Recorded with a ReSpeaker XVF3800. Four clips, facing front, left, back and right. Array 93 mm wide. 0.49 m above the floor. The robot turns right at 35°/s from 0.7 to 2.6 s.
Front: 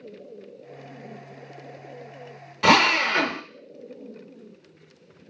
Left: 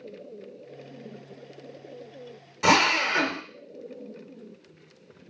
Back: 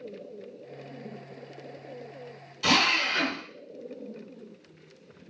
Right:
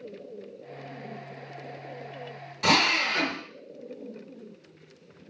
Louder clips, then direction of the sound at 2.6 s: Left 3 dB, front 7 dB; 20° left.